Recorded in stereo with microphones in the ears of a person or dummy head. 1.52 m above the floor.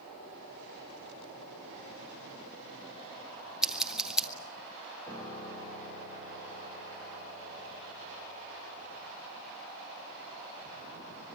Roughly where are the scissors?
Centre.